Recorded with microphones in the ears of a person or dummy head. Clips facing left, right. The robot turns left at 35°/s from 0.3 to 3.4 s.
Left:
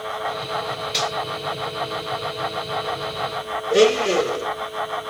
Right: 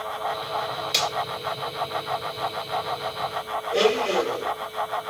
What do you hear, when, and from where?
0.9 s a finger snap: 60° right (ahead or behind), 3.5 m; by 1.1 s 65° right (ahead or behind), 3.5 m
3.7 s a blender: 60° left (ahead or behind), 1.4 m